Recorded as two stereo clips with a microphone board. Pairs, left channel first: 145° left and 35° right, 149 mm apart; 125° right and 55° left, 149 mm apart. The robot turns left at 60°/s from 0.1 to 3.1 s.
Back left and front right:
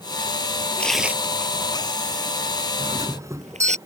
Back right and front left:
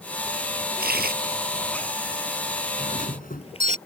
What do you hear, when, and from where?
0.8 s tearing paper: 65° left; by 3.8 s 75° right
2.8 s a doorbell: 85° right; by 3.8 s 105° right